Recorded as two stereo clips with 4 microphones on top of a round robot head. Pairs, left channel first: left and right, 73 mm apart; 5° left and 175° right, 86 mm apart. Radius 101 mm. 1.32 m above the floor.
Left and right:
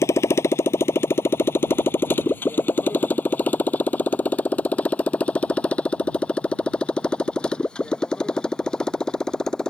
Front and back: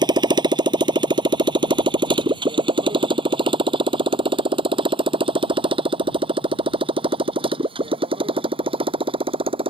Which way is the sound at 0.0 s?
150° left.